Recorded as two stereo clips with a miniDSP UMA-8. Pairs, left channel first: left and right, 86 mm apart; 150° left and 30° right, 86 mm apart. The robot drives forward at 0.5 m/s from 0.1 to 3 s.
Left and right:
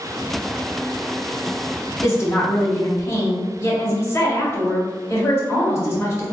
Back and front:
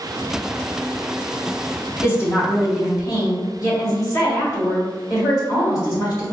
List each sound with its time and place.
2.0 s a woman speaking: 115° left, 1.5 m; by 6.3 s 135° left, 1.7 m